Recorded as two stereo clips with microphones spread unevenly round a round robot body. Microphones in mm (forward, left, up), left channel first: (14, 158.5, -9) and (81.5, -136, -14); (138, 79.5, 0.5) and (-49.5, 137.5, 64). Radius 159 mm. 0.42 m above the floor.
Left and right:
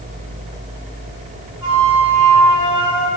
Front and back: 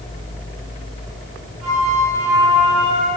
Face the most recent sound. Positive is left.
turn(degrees=-105)